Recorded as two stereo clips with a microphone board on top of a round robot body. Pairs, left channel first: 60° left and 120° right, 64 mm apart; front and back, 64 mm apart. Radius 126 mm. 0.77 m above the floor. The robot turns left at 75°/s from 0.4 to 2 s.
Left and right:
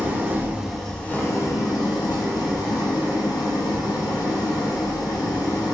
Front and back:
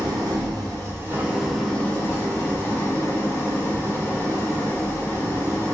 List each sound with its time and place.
0.0 s an engine running: 175° left, 0.8 m; by 5.7 s 55° left, 0.8 m